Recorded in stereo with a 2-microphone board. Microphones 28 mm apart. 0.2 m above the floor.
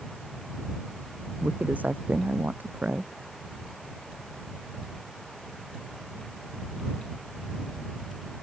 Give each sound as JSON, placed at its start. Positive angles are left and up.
{"t": 1.4, "sound": "a woman speaking", "side_deg": -75}